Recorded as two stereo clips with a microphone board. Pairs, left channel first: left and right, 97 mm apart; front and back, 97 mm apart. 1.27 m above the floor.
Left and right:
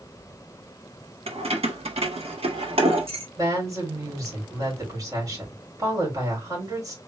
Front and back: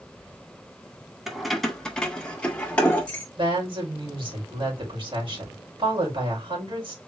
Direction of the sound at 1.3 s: 95° right.